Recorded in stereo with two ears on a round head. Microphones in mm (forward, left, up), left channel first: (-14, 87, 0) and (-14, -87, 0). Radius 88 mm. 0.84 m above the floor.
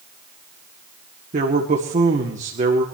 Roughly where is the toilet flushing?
No toilet flushing in this recording.